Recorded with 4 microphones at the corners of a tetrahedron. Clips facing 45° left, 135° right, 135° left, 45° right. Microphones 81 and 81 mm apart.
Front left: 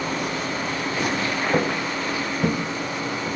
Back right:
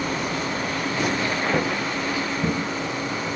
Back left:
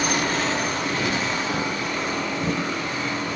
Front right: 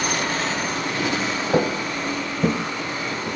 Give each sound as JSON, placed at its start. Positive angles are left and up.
{"t": 1.5, "sound": "footsteps", "azimuth_deg": -30, "distance_m": 2.5}